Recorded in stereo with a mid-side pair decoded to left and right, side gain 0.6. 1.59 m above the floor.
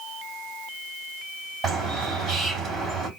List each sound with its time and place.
1.6 s a bird: 30° right, 3 m